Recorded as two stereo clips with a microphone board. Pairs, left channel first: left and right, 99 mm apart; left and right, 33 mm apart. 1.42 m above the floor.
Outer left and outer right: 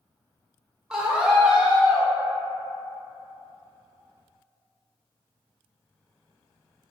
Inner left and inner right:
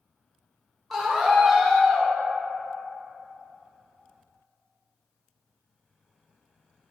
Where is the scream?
5° right (ahead or behind), 0.6 m.